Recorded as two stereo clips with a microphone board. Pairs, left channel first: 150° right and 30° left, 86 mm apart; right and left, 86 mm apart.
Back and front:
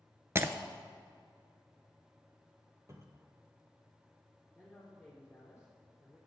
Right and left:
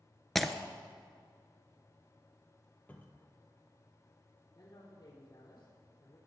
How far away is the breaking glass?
About 0.6 m.